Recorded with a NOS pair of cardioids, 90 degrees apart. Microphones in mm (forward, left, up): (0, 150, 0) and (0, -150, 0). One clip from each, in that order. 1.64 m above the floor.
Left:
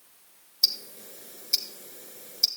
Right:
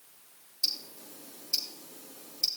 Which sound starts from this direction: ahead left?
Ticking, at 0.6 s.